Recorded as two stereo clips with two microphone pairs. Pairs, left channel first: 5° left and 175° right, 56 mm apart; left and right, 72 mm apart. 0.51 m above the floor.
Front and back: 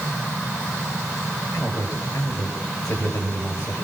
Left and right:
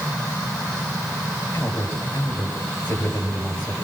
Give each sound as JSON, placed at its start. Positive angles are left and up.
{"t": 1.5, "sound": "a man speaking", "azimuth_deg": 25, "distance_m": 9.5}